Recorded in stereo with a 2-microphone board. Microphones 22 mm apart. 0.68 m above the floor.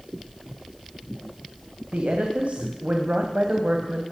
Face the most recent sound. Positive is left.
turn(degrees=-80)